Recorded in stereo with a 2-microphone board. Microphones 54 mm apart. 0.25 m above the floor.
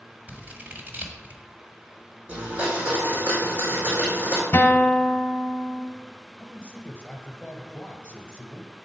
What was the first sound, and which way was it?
Scissors, 35° right (ahead or behind).